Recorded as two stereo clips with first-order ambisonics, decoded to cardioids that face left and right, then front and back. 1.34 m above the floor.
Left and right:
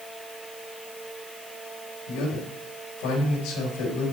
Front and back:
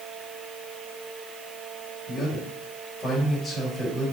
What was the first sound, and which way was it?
A man speaking, 75° left.